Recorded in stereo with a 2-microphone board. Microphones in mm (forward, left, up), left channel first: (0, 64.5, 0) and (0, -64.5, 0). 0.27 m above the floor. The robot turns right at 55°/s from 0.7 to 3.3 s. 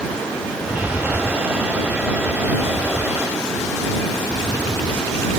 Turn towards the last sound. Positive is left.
turn(degrees=-175)